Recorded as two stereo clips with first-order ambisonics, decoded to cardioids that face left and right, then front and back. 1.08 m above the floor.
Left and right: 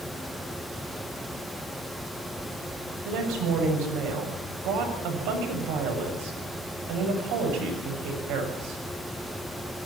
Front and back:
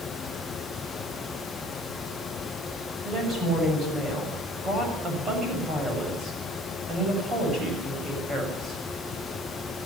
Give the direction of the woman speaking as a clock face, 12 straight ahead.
4 o'clock.